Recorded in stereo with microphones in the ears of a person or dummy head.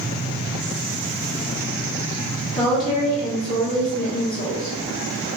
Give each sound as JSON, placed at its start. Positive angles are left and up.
{"t": 2.6, "sound": "a woman speaking", "side_deg": 35, "distance_m": 1.3}